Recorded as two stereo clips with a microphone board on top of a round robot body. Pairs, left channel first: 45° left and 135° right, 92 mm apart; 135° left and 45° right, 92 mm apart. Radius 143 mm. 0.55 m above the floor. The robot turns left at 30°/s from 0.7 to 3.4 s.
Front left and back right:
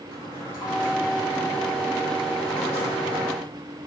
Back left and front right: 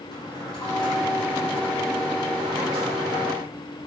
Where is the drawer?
100° left, 6.5 m; by 3.3 s 20° left, 6.5 m.